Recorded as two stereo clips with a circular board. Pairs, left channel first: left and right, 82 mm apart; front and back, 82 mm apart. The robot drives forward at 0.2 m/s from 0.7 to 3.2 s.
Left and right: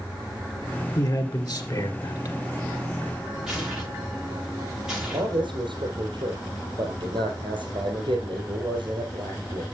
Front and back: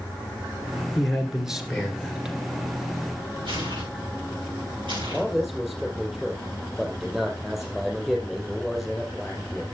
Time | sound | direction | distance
0.9 | a man speaking | 90° left | 2.5 m
3.5 | tearing paper | 175° right | 6 m
5.1 | a man speaking | 100° right | 4 m